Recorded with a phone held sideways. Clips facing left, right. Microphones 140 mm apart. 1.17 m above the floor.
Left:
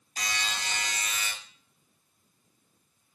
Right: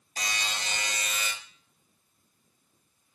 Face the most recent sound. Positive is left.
turn(degrees=-45)  # may be behind; listen again after turning